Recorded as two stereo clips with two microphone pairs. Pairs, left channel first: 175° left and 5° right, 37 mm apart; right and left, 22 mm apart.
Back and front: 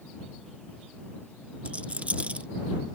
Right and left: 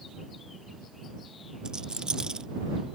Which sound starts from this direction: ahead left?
A rattle, at 1.6 s.